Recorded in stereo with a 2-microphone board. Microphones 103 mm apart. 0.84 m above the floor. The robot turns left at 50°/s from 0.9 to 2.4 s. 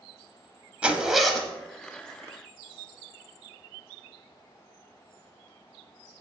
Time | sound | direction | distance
0.8 | a zipper | 160° right | 0.7 m